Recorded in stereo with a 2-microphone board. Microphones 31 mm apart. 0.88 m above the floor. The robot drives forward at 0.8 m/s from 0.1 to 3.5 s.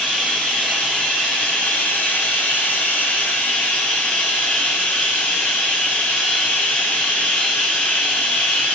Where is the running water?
40° left (ahead or behind), 2.5 m; by 8.8 s 65° left (ahead or behind), 1.9 m.